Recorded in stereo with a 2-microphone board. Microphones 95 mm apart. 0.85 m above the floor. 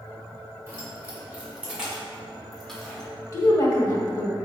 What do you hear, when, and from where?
0.7 s keys jangling: 25° right (ahead or behind), 2.5 m; by 3.1 s 10° left (ahead or behind), 1.8 m
3.3 s a woman speaking: 35° left (ahead or behind), 1.4 m